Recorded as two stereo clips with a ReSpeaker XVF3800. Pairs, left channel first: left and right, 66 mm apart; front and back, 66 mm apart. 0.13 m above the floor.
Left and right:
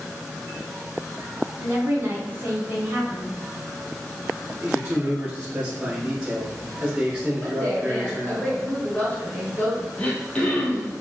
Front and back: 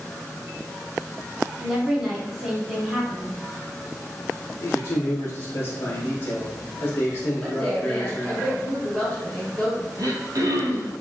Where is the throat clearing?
160° left, 0.8 m.